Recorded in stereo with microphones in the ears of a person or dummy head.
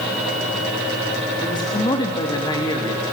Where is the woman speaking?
25° left (ahead or behind), 3.5 m.